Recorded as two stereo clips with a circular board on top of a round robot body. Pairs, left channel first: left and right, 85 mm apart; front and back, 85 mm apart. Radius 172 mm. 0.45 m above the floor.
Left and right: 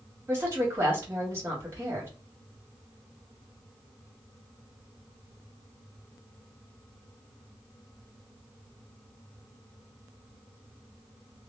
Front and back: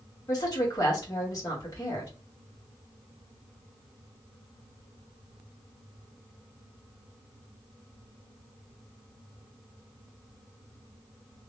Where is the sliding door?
I don't hear a sliding door.